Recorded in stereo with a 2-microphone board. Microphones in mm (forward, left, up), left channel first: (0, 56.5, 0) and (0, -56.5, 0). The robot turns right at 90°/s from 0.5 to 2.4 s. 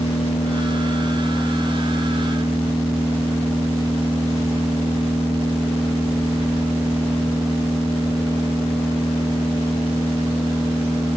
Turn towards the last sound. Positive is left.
turn(degrees=-80)